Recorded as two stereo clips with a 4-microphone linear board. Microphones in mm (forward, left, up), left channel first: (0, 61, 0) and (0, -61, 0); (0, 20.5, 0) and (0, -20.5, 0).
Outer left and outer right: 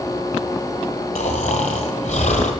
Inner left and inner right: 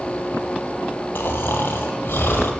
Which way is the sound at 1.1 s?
80° left.